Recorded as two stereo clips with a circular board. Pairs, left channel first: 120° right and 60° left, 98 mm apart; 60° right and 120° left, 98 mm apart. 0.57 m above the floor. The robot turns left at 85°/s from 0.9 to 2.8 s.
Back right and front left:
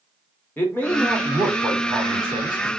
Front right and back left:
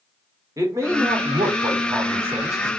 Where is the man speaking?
175° left, 1.3 m; by 2.7 s 20° left, 1.3 m.